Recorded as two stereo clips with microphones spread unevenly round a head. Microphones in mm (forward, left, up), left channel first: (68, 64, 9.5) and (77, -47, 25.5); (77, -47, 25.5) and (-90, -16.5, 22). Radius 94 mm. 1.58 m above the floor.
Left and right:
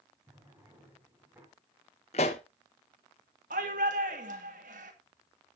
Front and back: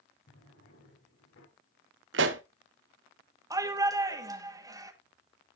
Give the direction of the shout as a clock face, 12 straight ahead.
4 o'clock.